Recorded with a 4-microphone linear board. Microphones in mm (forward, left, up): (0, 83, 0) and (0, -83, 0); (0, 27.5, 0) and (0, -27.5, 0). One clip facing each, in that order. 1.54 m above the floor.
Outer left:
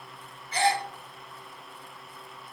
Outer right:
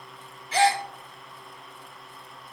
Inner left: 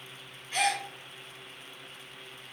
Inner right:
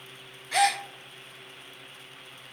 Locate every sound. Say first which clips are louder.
0.5 s a gasp: outer right 4 dB, inner right 5 dB; 80° right, 0.5 m